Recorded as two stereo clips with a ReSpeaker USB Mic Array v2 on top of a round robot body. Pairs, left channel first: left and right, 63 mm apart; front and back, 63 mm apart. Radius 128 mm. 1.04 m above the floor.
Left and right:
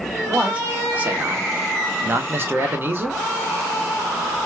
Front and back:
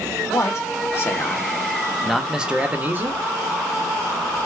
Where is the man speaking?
25° right, 1.3 m; by 3.2 s 140° right, 1.1 m.